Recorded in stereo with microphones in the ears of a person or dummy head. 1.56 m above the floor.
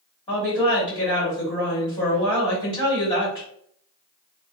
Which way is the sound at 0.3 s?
30° left (ahead or behind).